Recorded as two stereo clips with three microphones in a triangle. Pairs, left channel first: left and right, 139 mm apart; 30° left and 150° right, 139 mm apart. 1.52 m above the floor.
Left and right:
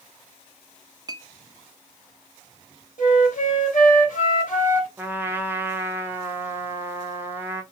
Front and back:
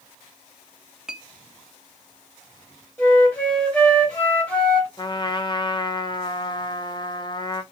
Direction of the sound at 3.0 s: 105° left.